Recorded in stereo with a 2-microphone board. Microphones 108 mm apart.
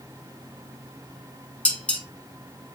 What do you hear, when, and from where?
1.6 s dishes clattering: 15° left (ahead or behind), 0.8 m